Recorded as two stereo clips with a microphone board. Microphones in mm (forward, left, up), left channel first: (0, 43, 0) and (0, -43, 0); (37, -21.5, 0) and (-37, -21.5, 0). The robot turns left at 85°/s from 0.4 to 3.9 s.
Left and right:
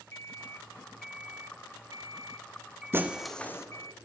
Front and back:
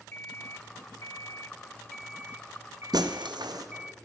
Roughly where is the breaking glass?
Behind right.